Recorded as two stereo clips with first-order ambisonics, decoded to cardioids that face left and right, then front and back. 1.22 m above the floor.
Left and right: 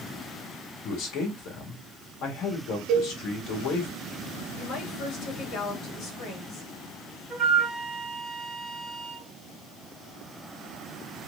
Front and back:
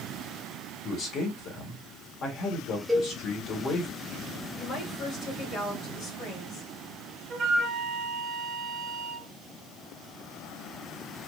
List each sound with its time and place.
0.8 s a man speaking: 50° left, 1.9 m
2.9 s a cowbell: 105° right, 1.0 m
4.5 s a woman speaking: 45° left, 2.5 m
7.3 s a flute: 150° right, 1.1 m